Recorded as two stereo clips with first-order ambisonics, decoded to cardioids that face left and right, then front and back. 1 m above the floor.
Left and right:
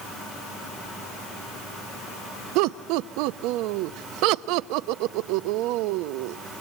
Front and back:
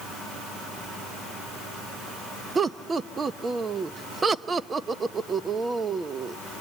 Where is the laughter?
110° right, 0.7 m.